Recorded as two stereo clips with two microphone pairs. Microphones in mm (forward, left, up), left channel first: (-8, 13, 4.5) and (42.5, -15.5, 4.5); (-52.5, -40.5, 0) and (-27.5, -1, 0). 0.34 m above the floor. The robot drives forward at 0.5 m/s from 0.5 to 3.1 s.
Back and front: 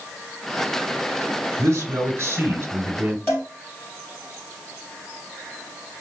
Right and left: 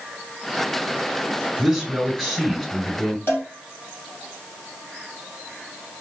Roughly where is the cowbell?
Behind.